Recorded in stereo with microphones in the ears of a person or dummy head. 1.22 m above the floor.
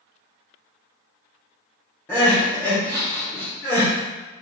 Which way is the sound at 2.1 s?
10° left (ahead or behind).